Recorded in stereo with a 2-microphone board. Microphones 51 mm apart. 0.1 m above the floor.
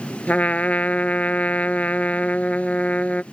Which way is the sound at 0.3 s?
30° left (ahead or behind).